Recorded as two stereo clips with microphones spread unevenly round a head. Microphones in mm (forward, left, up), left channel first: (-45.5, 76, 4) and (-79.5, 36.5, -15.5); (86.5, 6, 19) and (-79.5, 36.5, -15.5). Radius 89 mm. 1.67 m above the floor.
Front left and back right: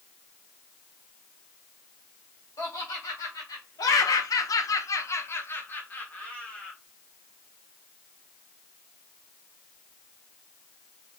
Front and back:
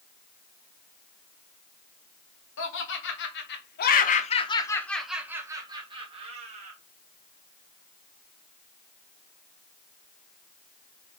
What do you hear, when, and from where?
2.6 s laughter: straight ahead, 1.2 m; by 6.8 s 120° left, 1.3 m